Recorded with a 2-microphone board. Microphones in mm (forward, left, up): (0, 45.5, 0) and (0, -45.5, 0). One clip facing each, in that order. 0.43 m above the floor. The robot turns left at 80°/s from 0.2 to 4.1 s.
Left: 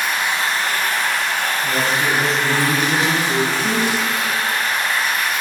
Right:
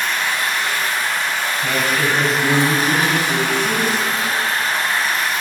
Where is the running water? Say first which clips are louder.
Even; 170° left, 2.0 m; by 5.4 s 145° right, 2.0 m.